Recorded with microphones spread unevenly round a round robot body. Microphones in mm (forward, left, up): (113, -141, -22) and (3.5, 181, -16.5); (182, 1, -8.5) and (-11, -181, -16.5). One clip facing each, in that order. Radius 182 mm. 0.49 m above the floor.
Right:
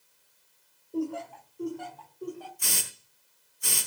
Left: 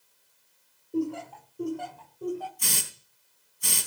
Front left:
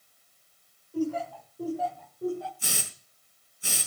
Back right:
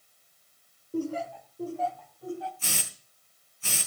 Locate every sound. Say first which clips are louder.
0.9 s laughter: left 2 dB, front left 2 dB; straight behind, 1.4 m; by 2.5 s 105° left, 2 m
2.6 s a hiss: left 2 dB, front left 1 dB; 125° left, 4 m